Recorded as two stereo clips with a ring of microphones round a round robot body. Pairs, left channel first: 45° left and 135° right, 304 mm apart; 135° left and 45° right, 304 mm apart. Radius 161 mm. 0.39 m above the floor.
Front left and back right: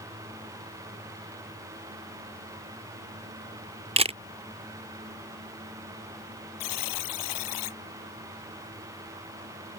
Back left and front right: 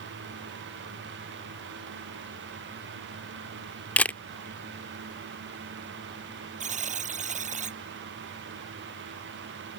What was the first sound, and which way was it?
A camera shutter, 150° right.